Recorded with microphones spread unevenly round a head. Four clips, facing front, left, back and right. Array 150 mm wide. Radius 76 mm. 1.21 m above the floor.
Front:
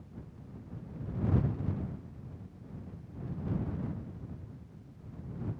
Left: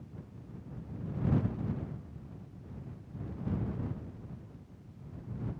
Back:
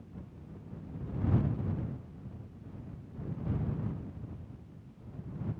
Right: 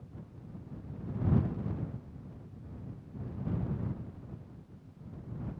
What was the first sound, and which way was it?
Only background noise.